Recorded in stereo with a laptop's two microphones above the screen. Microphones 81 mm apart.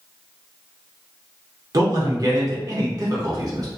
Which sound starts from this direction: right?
A man speaking, at 1.7 s.